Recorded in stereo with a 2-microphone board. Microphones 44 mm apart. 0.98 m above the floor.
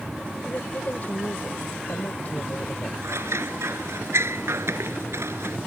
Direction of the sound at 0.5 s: 40° left (ahead or behind).